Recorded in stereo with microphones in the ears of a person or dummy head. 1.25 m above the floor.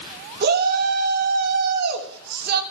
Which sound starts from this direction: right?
A shout, at 0.4 s.